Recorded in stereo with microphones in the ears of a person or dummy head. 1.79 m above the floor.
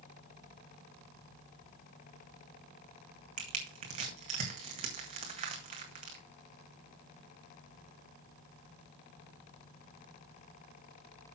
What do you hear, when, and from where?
3.4 s crushing: 40° right (ahead or behind), 2 m